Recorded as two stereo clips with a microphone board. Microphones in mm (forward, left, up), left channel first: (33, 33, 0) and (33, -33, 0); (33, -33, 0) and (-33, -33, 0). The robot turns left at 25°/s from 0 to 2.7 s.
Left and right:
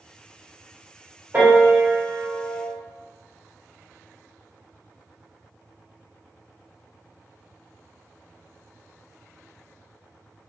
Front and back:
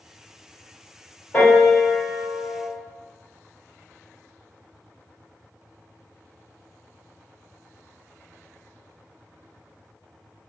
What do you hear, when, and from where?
1.3 s a piano: 50° right, 1.4 m; by 2.7 s 80° right, 1.4 m